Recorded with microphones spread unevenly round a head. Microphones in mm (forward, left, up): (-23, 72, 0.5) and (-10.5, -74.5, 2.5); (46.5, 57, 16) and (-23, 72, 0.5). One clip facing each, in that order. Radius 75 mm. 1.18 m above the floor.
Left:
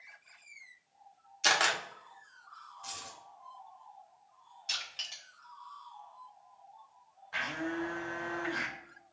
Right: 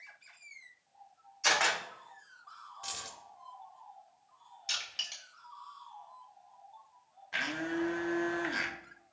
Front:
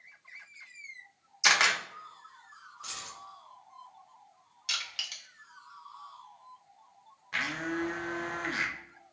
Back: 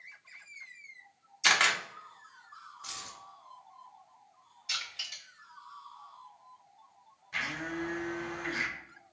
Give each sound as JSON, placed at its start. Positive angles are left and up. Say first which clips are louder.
{"t": 1.4, "sound": "a camera shutter", "louder": "even, front 1 dB", "azimuth_deg": 75, "distance_m": 0.7}
{"t": 2.8, "sound": "keys jangling", "louder": "right 1 dB, front 3 dB", "azimuth_deg": -60, "distance_m": 0.9}
{"t": 4.7, "sound": "crushing", "louder": "right 1 dB, front 2 dB", "azimuth_deg": -5, "distance_m": 1.1}
{"t": 7.3, "sound": "a blender", "louder": "right 1 dB, front 3 dB", "azimuth_deg": -30, "distance_m": 0.5}